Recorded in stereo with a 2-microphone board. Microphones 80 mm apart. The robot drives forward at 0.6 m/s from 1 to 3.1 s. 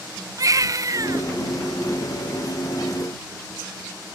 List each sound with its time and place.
0.4 s a baby crying: 45° right (ahead or behind), 0.8 m